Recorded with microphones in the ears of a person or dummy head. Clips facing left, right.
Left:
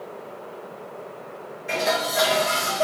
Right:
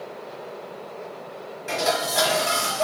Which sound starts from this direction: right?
Dishes clattering, at 1.7 s.